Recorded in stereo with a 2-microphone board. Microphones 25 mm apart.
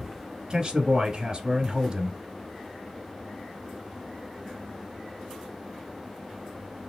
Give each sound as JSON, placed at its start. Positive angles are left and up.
{"t": 0.5, "sound": "a man speaking", "side_deg": -25, "distance_m": 1.2}